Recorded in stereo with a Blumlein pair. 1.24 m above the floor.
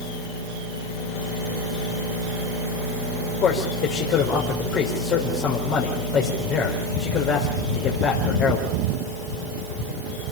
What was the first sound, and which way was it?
A man speaking, 30° left.